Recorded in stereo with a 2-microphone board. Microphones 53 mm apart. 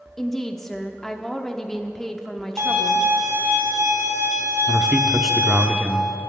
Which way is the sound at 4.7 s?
Centre (ahead or behind).